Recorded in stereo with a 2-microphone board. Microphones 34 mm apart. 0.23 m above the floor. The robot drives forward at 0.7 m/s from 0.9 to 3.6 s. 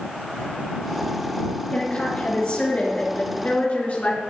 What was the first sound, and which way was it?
A woman speaking, 35° left (ahead or behind).